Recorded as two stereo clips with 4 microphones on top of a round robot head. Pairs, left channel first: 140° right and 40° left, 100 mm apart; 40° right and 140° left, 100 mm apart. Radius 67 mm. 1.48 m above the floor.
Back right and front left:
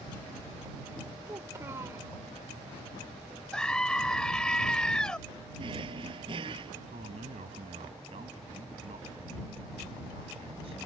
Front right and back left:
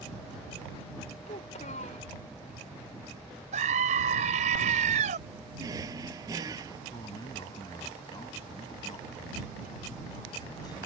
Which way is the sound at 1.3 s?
25° right.